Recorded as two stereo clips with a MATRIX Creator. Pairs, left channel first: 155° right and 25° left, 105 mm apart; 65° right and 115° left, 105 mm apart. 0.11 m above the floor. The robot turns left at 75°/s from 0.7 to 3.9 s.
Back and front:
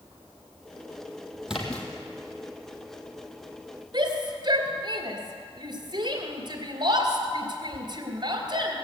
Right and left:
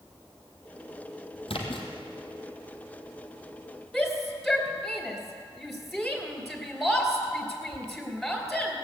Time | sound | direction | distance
1.5 | a splash | 60° right | 2 m
3.9 | a shout | 20° left | 2.5 m